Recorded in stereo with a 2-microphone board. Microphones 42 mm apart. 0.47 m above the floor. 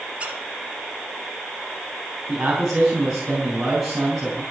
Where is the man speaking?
10° right (ahead or behind), 4 m.